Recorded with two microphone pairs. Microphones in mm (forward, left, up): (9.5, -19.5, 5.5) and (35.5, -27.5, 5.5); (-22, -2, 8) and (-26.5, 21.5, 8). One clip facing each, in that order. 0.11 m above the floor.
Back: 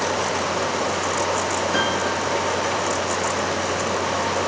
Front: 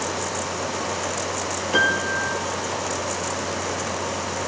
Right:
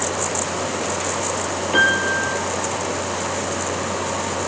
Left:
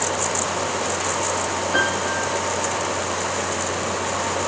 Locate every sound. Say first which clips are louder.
1.7 s a piano: front 6 dB, right 6 dB; 65° right, 2.5 m